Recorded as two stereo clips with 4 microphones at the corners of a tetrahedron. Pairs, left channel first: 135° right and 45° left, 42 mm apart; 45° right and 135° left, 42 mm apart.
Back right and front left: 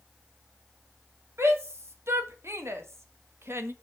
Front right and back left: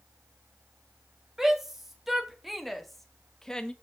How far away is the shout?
About 2.5 m.